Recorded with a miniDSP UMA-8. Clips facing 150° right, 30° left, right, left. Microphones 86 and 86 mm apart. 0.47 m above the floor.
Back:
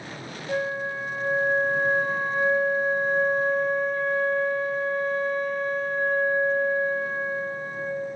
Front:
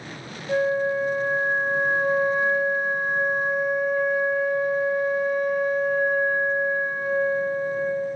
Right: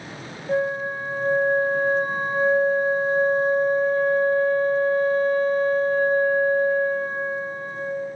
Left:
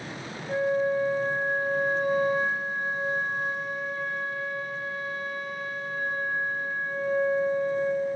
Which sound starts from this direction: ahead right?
A flute, at 0.5 s.